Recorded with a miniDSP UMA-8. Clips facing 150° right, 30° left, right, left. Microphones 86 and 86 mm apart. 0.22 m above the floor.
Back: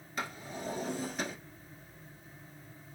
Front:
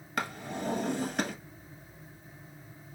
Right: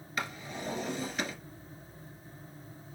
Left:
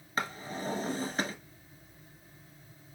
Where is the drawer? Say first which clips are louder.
Front 5 dB, left 3 dB; 35° left, 0.7 m.